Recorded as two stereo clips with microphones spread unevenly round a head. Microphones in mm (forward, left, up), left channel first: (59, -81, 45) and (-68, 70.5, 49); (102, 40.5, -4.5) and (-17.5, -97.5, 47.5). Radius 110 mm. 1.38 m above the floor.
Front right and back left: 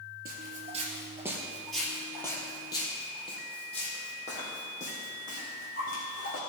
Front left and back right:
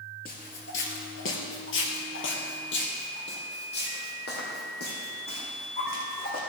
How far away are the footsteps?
About 1.7 m.